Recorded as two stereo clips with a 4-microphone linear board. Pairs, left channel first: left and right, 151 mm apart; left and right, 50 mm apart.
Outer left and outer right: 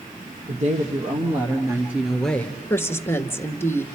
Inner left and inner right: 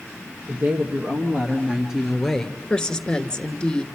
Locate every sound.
0.5 s a woman speaking: 50° right (ahead or behind), 2.5 m; by 2.6 s 15° left (ahead or behind), 1.8 m
2.7 s a woman speaking: 15° left (ahead or behind), 1.2 m